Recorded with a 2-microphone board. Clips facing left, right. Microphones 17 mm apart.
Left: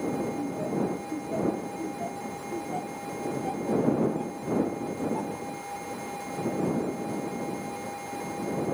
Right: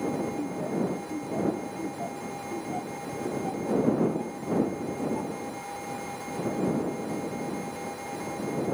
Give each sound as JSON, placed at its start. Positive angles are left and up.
{"t": 0.4, "sound": "laughter", "side_deg": 10}